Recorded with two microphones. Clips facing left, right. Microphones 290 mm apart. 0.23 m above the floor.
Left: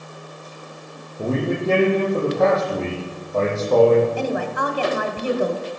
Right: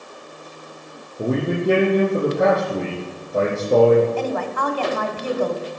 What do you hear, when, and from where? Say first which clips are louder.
1.2 s a man speaking: right 1 dB; 15° right (ahead or behind), 9.5 m
4.2 s a woman speaking: even; 10° left (ahead or behind), 1.7 m